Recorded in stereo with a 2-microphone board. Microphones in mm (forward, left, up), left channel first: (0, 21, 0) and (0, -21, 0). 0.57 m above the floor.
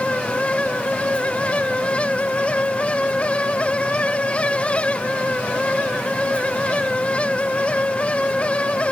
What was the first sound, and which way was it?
Only background noise.